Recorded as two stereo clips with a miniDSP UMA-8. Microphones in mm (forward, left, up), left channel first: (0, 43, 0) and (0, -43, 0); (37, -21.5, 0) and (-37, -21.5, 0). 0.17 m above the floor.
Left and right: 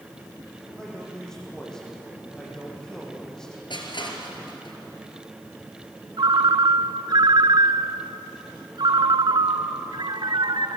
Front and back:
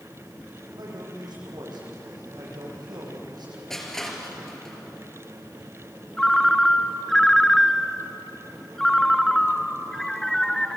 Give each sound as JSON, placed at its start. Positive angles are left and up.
{"t": 0.7, "sound": "a man speaking", "azimuth_deg": 175, "distance_m": 8.5}
{"t": 3.7, "sound": "crushing", "azimuth_deg": 85, "distance_m": 3.5}
{"t": 6.2, "sound": "a ringtone", "azimuth_deg": -85, "distance_m": 0.9}